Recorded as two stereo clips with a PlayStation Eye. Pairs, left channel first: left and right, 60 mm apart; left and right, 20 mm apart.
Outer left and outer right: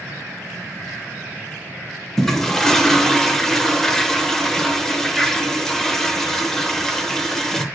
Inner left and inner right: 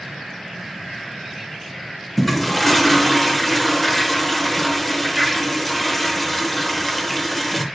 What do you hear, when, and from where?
2.2 s a toilet flushing: 5° left (ahead or behind), 0.8 m